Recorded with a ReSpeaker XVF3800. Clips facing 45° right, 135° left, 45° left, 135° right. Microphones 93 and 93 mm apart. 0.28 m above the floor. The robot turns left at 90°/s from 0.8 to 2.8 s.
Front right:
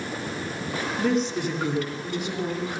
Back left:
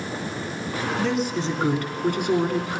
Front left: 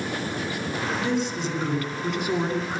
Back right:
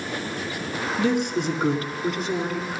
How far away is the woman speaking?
About 3 m.